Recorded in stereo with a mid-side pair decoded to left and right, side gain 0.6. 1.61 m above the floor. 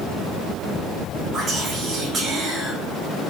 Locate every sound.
1.3 s whispering: 40° right, 0.9 m